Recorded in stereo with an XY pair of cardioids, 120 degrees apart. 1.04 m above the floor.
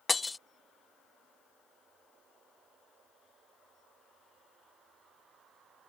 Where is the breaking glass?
15° left.